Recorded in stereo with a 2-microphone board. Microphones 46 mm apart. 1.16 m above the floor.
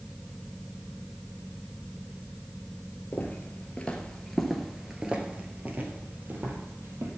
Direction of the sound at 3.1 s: 35° left (ahead or behind).